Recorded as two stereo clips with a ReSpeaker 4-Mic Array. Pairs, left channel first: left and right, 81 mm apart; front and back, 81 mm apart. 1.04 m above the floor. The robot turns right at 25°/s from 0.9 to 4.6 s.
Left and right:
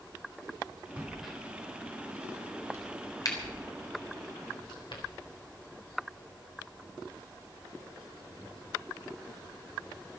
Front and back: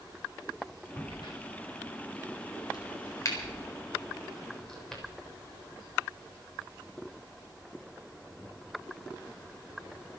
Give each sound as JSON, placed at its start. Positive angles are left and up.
{"t": 1.0, "sound": "a crack", "azimuth_deg": -10, "distance_m": 4.0}